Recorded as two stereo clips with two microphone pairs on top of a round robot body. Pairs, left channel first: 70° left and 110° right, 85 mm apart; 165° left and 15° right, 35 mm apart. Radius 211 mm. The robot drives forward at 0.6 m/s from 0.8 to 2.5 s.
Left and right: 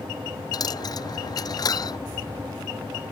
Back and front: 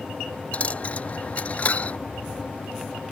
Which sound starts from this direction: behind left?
A dropped coin, at 0.5 s.